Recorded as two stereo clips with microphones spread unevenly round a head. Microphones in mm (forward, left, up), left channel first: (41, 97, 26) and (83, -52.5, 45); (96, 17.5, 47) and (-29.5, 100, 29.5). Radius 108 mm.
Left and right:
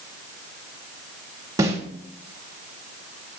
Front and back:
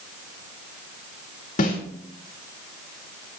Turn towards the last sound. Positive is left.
turn(degrees=-5)